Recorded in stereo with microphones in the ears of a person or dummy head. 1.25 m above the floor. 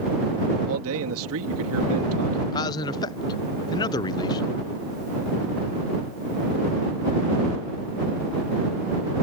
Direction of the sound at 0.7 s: 75° right (ahead or behind).